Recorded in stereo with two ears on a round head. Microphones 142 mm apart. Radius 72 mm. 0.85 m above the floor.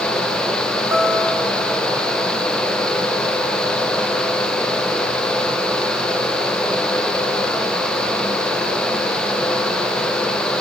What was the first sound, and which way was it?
A guitar, 20° right (ahead or behind).